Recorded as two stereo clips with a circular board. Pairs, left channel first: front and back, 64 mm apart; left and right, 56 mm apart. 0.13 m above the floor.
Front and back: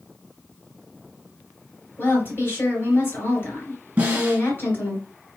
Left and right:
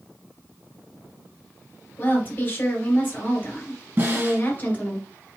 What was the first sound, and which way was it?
A woman speaking, 40° left.